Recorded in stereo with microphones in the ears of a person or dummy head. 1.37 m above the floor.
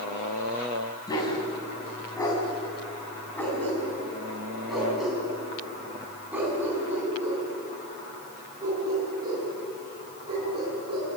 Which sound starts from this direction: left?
A dog barking, at 1.1 s.